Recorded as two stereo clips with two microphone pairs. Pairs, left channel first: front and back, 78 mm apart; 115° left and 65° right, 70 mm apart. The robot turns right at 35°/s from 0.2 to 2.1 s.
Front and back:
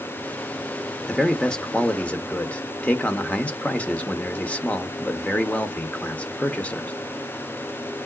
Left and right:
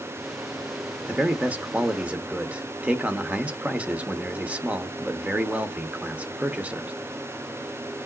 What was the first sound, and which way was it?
A man speaking, 75° right.